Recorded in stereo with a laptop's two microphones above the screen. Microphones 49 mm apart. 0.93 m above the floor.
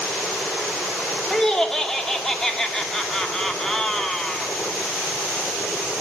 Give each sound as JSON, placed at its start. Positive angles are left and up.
{"t": 1.3, "sound": "laughter", "side_deg": 10, "distance_m": 2.0}